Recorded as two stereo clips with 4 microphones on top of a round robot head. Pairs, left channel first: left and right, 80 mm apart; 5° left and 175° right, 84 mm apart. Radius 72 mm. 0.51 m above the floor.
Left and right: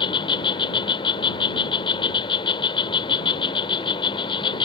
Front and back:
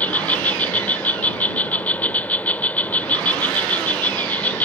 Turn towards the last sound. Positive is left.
turn(degrees=75)